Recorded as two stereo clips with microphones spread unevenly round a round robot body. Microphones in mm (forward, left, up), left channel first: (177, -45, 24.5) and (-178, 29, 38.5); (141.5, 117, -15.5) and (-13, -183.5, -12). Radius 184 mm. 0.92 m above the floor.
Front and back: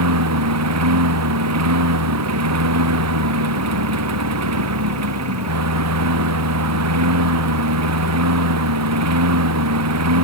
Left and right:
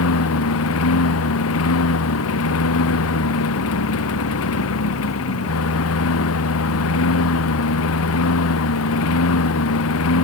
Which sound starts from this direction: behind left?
A lawn mower, at 0.0 s.